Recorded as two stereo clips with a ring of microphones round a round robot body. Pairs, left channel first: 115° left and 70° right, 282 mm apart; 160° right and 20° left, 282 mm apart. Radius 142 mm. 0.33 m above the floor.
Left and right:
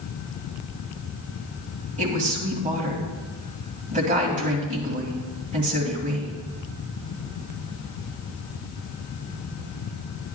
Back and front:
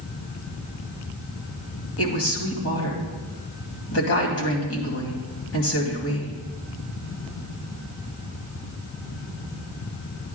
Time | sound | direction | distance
2.0 | a woman speaking | 130° right | 2.5 m